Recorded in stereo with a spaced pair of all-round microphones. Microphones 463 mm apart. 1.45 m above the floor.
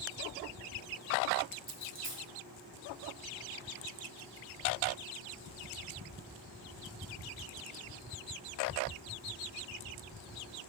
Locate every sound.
1.7 s a dropped coin: 25° right (ahead or behind), 1.0 m